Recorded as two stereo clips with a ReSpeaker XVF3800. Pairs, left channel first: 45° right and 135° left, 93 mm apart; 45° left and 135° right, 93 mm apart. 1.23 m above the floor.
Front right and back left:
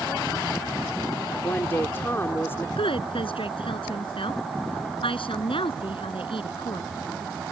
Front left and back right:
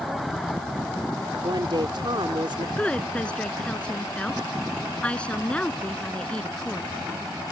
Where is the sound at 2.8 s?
35° right.